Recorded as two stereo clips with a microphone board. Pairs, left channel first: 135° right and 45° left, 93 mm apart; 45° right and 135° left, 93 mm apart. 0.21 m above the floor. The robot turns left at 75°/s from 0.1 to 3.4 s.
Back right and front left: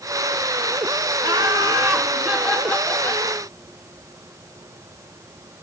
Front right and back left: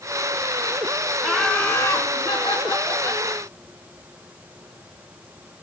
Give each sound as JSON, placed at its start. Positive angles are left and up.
{"t": 1.2, "sound": "laughter", "azimuth_deg": 50, "distance_m": 2.0}